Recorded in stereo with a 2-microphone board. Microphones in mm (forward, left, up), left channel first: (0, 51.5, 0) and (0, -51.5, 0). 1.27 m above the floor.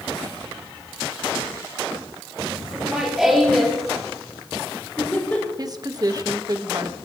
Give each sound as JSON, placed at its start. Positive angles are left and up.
{"t": 2.7, "sound": "laughter", "side_deg": -10, "distance_m": 4.5}
{"t": 5.6, "sound": "a woman speaking", "side_deg": -40, "distance_m": 1.4}